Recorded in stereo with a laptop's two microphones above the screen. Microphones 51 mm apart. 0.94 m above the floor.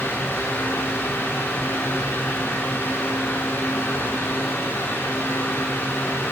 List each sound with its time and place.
0.0 s a fan: 55° left (ahead or behind), 3 m